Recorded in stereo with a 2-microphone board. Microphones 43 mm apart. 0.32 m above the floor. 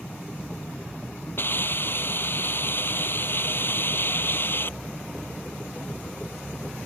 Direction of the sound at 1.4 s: 50° left (ahead or behind).